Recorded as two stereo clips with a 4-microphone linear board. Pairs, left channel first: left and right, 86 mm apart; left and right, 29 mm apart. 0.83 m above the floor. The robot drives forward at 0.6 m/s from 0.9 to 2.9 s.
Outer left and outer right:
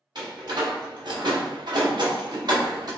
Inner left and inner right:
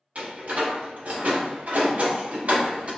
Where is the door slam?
55° right (ahead or behind), 1.1 m; by 2.9 s 45° right (ahead or behind), 1.3 m.